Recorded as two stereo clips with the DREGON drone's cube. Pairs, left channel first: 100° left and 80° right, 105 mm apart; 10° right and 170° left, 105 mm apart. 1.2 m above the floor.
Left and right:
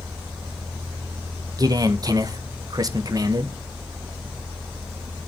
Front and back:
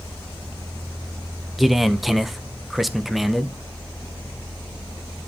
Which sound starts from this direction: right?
A man speaking, at 1.6 s.